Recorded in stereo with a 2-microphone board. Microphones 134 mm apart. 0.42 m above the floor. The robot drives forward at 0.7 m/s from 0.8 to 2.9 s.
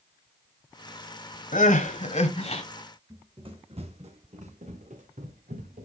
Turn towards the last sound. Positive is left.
turn(degrees=-80)